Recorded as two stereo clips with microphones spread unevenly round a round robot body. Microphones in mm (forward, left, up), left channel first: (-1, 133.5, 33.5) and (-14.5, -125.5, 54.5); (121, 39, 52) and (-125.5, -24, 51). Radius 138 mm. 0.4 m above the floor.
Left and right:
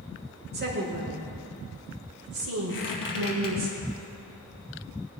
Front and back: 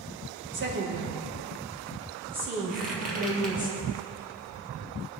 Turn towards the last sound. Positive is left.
turn(degrees=135)